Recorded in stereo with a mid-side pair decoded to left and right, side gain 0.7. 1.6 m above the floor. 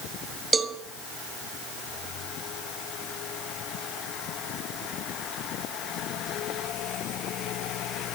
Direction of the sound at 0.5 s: 20° right.